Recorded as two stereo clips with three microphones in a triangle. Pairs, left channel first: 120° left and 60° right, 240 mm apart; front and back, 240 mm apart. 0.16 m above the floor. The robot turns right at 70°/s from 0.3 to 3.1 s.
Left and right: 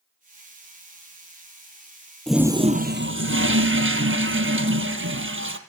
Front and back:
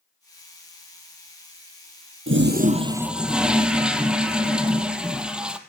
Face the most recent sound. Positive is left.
turn(degrees=-95)